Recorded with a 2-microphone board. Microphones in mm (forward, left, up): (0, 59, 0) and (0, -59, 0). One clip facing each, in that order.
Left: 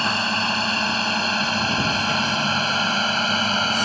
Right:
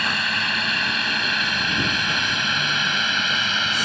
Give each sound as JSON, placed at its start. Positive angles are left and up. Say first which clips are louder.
{"t": 0.0, "sound": "a drone", "louder": "left 3 dB", "side_deg": 30}